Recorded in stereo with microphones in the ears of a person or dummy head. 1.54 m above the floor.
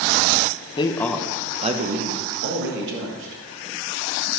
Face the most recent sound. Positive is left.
turn(degrees=-75)  # may be behind; listen again after turning